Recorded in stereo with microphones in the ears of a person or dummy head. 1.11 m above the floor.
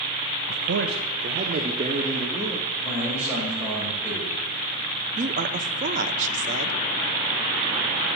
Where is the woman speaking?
40° right (ahead or behind), 0.9 m.